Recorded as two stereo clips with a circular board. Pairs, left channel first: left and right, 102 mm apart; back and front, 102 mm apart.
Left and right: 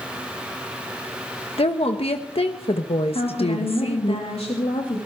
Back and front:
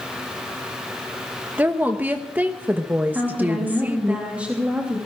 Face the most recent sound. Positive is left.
turn(degrees=80)